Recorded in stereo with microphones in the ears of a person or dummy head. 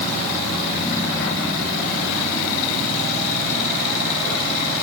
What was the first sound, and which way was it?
Only background noise.